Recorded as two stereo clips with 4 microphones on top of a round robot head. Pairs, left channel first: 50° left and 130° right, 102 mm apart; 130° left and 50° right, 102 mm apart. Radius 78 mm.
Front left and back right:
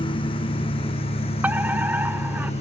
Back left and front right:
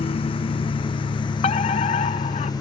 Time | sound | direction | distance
0.0 | a lawn mower | 95° left | ?
1.4 | a fire alarm | 155° left | ?